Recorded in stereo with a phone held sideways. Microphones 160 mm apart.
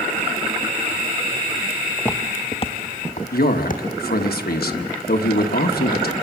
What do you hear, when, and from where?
2.0 s footsteps: 10° left (ahead or behind), 1.3 m; by 4.3 s 65° left (ahead or behind), 3 m
3.3 s a man speaking: 75° left (ahead or behind), 1.3 m